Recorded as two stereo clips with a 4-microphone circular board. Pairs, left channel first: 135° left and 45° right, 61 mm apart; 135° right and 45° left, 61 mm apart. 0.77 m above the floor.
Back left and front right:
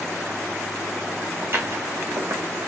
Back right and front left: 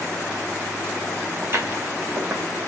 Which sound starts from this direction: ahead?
Footsteps, at 1.4 s.